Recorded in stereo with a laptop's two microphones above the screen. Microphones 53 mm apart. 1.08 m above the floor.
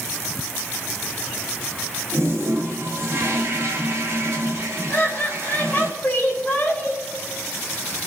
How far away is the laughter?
About 4 m.